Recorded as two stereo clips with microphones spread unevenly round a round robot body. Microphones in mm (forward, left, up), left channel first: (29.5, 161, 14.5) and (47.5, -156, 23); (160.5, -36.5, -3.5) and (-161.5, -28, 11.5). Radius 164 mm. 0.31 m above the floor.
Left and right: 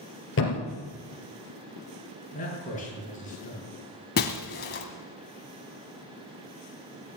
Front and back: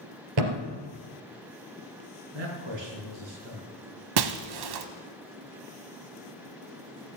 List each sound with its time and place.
0.4 s a thud: 150° left, 3 m
2.3 s a man speaking: 160° left, 5.5 m
4.2 s breaking glass: 155° left, 1.1 m